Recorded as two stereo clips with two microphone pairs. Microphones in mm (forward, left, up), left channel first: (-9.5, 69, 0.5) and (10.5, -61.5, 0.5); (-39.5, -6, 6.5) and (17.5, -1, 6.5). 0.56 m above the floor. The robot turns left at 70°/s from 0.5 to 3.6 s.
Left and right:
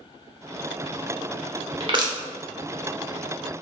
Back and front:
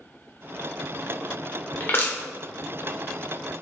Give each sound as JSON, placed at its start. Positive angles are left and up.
{"t": 1.8, "sound": "crushing", "azimuth_deg": -120, "distance_m": 0.9}